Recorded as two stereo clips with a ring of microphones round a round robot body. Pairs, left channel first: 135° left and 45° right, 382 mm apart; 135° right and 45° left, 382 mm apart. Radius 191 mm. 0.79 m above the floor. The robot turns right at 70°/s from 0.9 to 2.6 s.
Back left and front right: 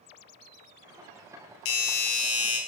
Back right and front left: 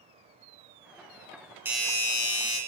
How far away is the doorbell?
About 1.3 m.